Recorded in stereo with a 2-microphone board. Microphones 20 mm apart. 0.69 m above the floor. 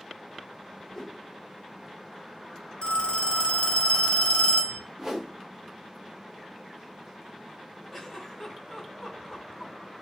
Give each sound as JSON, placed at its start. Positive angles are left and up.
{"t": 0.9, "sound": "a whoosh", "side_deg": 20, "distance_m": 0.6}
{"t": 2.8, "sound": "a phone ringing", "side_deg": 55, "distance_m": 1.5}
{"t": 5.0, "sound": "a whoosh", "side_deg": -20, "distance_m": 0.9}
{"t": 7.9, "sound": "a giggle", "side_deg": 5, "distance_m": 2.0}